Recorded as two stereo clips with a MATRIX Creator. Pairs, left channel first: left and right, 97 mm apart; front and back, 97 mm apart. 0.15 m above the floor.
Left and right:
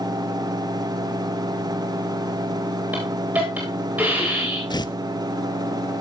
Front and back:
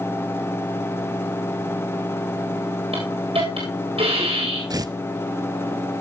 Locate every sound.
2.9 s a hiss: 165° right, 10 m
4.7 s tearing paper: 130° left, 0.6 m